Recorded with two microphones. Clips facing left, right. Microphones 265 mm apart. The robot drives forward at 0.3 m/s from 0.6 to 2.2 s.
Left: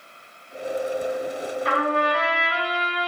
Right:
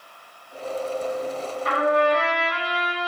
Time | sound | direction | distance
1.6 | a trumpet | 35° left (ahead or behind) | 1.8 m